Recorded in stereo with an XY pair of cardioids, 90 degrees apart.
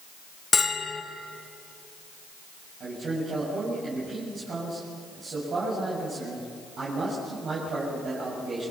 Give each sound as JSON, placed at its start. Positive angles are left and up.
{"t": 0.5, "sound": "a bell", "azimuth_deg": 35, "distance_m": 2.5}
{"t": 2.8, "sound": "a man speaking", "azimuth_deg": -65, "distance_m": 8.0}